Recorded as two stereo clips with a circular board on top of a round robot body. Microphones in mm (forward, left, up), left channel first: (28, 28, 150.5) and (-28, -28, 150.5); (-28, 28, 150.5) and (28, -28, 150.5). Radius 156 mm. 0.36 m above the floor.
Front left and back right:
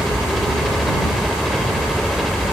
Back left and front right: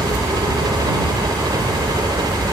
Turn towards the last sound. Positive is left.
turn(degrees=-45)